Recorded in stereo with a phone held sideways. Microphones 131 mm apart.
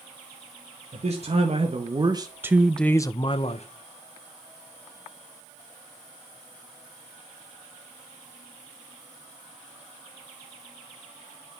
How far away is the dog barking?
No dog barking in this recording.